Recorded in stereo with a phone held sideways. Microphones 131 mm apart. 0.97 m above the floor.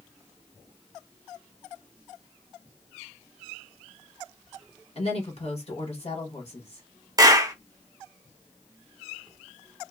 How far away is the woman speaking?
About 1.4 m.